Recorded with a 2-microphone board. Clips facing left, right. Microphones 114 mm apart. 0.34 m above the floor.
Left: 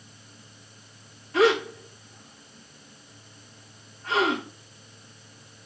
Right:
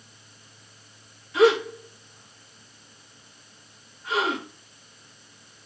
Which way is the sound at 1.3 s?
40° left (ahead or behind).